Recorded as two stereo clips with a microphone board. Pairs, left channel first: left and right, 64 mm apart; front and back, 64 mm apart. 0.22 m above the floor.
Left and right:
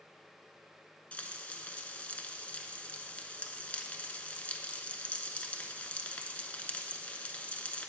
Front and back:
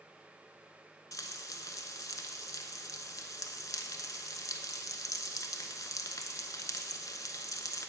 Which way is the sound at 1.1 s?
20° left.